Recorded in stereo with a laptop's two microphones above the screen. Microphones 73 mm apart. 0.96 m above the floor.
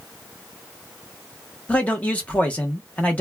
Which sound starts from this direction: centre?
A man speaking, at 1.7 s.